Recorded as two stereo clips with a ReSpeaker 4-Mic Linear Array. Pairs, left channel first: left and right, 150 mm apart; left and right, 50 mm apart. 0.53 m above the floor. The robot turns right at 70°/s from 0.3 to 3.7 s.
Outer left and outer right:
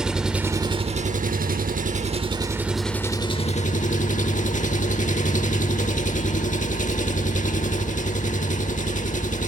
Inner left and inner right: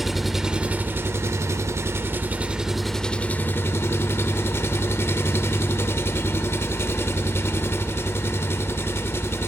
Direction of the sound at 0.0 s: 175° right.